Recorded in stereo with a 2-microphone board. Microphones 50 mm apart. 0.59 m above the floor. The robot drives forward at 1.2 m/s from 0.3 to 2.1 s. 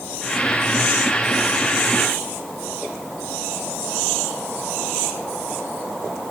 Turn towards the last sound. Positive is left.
No sound to turn to.